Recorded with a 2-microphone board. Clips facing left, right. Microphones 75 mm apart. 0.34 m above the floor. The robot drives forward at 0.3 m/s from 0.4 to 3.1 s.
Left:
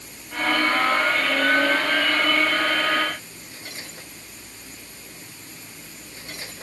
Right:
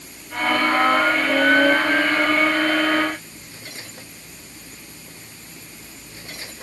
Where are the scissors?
I don't hear scissors.